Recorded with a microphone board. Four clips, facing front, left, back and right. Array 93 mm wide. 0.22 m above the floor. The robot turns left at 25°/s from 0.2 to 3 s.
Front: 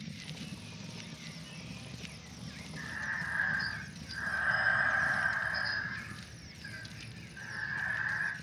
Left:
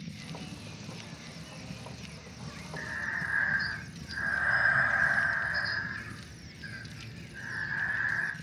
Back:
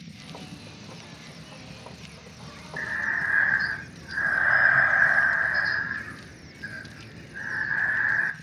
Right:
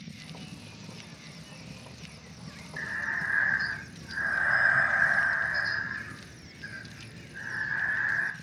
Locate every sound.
2.8 s breathing: 165° right, 0.6 m; by 8.3 s 170° right, 0.6 m